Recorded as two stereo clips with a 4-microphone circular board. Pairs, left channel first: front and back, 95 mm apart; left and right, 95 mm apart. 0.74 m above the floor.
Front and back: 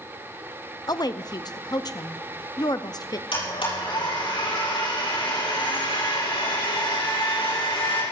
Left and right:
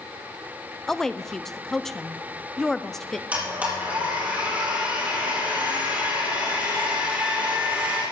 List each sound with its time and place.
0.9 s a woman speaking: 5° left, 0.6 m
3.3 s a blender: 15° right, 7 m